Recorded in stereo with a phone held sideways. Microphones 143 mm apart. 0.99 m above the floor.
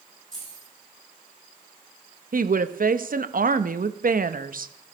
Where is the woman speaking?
75° right (ahead or behind), 0.8 m.